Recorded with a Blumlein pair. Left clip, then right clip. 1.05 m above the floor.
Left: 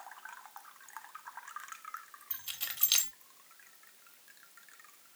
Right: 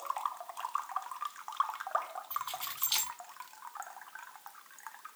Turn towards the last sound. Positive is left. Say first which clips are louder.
# right 2 dB
turn(degrees=55)